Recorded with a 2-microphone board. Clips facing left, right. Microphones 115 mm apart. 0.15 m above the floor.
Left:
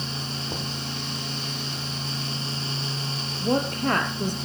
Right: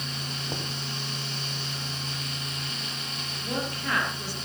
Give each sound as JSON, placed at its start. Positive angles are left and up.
{"t": 0.5, "sound": "knocking", "side_deg": 0, "distance_m": 3.0}
{"t": 3.4, "sound": "a woman speaking", "side_deg": 45, "distance_m": 3.5}